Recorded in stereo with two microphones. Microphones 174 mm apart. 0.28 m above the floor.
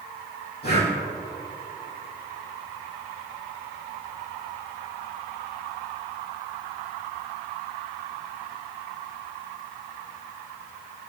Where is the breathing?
70° left (ahead or behind), 4.5 m.